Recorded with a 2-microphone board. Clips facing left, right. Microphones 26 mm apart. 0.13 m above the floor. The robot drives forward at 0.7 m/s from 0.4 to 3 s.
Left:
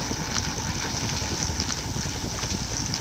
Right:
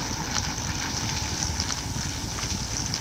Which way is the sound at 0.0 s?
55° left (ahead or behind).